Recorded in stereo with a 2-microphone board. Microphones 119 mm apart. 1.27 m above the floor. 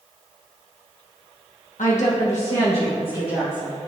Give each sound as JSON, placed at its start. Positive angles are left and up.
{"t": 1.8, "sound": "a woman speaking", "side_deg": 85, "distance_m": 1.0}